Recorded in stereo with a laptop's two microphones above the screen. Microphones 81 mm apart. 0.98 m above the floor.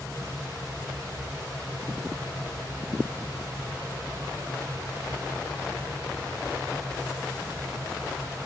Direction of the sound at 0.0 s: 35° right (ahead or behind).